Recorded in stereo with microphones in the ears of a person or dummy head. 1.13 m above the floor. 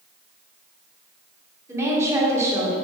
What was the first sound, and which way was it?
A woman speaking, 15° right (ahead or behind).